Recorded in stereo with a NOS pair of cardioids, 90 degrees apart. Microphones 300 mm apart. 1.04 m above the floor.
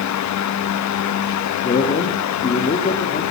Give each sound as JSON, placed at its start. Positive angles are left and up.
{"t": 0.0, "sound": "a fan", "azimuth_deg": 70, "distance_m": 1.1}
{"t": 1.6, "sound": "a man speaking", "azimuth_deg": 30, "distance_m": 2.0}